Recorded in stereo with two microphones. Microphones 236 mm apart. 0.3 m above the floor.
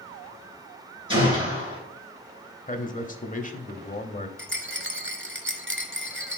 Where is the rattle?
50° right (ahead or behind), 0.9 m.